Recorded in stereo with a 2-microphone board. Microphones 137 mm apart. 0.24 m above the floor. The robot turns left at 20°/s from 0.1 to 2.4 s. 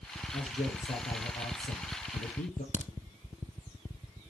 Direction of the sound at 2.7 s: 60° right (ahead or behind).